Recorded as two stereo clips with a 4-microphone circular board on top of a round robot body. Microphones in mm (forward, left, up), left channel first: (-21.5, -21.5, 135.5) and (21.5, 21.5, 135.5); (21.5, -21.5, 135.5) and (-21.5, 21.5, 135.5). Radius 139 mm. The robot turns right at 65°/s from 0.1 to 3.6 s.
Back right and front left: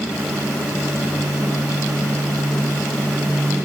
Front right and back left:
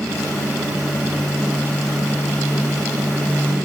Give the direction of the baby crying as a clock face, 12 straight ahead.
I don't hear a baby crying.